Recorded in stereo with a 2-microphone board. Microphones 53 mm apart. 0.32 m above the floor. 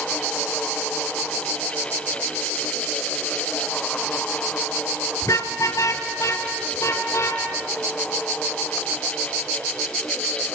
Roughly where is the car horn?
Left.